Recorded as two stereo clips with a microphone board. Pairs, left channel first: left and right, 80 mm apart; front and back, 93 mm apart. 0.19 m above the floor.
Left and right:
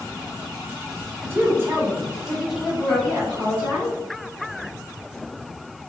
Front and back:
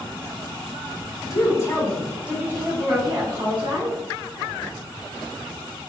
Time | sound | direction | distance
1.2 | a woman speaking | 35° right | 1.5 m